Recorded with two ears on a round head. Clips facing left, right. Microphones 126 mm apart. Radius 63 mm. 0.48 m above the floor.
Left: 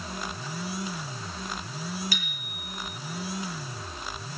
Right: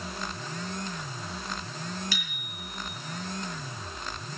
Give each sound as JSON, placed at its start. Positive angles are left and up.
{"t": 2.1, "sound": "a bicycle bell", "side_deg": -70, "distance_m": 9.5}